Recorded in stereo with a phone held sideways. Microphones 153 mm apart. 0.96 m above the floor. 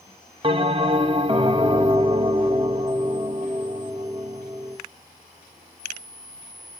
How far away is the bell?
About 0.8 m.